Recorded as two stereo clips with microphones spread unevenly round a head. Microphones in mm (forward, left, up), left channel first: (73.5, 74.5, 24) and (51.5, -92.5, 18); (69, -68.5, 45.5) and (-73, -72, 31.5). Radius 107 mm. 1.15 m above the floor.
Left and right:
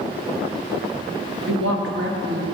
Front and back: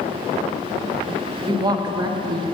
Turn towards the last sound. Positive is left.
turn(degrees=-115)